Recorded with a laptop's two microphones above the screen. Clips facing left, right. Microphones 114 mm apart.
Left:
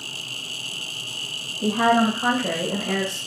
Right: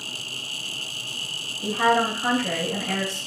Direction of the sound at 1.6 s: 70° left (ahead or behind).